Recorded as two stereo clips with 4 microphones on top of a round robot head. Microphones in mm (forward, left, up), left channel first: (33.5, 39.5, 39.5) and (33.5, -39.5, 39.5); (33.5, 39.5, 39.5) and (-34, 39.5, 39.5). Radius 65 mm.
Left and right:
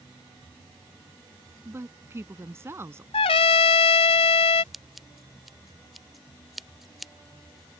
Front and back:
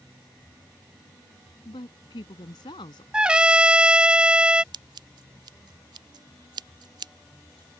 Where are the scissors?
Straight behind.